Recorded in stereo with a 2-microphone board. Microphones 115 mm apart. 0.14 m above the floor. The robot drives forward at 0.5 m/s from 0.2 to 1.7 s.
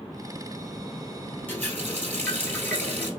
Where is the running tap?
15° left (ahead or behind), 1.8 m.